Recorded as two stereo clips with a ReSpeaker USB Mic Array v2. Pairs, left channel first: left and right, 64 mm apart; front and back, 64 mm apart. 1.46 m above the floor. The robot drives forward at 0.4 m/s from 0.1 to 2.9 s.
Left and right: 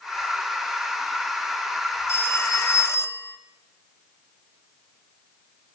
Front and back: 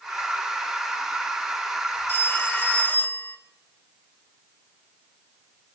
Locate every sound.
2.1 s a phone ringing: 45° left, 1.8 m; by 3.4 s 55° left, 1.6 m